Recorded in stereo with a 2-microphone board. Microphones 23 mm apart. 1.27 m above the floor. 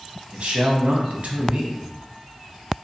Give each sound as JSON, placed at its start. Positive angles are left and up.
{"t": 0.3, "sound": "a man speaking", "side_deg": -60, "distance_m": 0.8}